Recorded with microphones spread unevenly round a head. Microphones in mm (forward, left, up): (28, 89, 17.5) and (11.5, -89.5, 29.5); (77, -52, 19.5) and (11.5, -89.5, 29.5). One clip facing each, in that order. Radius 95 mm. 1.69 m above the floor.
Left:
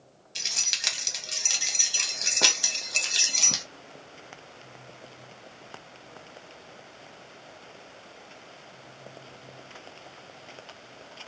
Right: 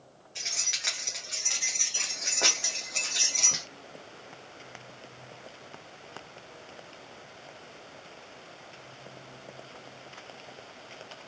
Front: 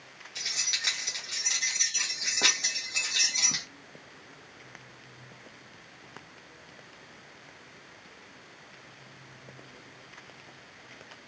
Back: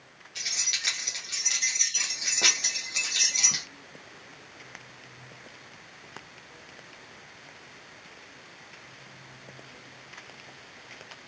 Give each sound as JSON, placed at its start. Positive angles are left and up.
{"t": 0.3, "sound": "keys jangling", "azimuth_deg": 105, "distance_m": 0.7}